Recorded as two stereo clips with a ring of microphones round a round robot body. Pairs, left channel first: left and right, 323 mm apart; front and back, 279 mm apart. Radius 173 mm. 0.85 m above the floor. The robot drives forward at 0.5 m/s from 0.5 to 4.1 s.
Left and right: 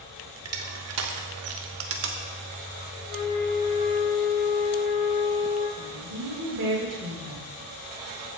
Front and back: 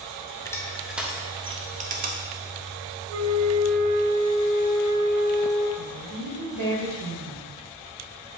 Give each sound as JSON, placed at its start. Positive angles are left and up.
{"t": 0.5, "sound": "crushing", "azimuth_deg": -75, "distance_m": 1.1}
{"t": 3.1, "sound": "a flute", "azimuth_deg": 145, "distance_m": 1.5}
{"t": 5.8, "sound": "a woman speaking", "azimuth_deg": -145, "distance_m": 3.5}